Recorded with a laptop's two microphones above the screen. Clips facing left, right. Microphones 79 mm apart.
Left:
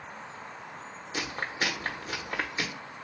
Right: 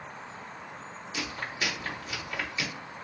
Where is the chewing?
45° left (ahead or behind), 1.0 m.